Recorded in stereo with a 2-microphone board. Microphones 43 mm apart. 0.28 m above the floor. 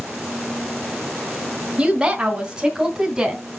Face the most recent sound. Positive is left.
turn(degrees=-5)  # may be behind; listen again after turning